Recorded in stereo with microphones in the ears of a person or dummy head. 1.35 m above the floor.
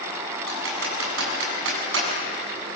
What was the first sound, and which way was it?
Typing on a keyboard, 85° right.